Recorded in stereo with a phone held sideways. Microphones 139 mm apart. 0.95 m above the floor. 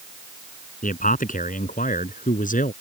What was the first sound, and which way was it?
A man speaking, 75° left (ahead or behind).